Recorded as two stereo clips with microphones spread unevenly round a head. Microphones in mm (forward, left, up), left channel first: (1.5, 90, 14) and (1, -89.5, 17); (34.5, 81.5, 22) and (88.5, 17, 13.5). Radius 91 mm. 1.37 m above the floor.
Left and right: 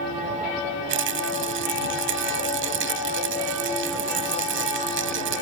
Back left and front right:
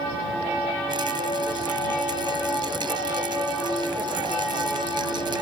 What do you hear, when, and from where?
0.9 s a rattle: 115° right